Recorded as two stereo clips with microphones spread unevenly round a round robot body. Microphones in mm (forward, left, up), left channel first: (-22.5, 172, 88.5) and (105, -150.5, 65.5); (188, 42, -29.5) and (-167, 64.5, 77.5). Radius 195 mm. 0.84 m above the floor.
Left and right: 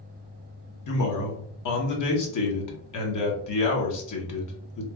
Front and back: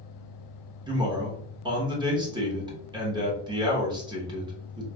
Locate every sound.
0.9 s a man speaking: 85° left, 0.9 m